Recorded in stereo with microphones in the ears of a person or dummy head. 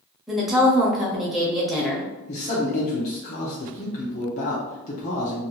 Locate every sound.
0.3 s a woman speaking: 5° left (ahead or behind), 0.6 m
2.3 s a man speaking: 40° left (ahead or behind), 0.6 m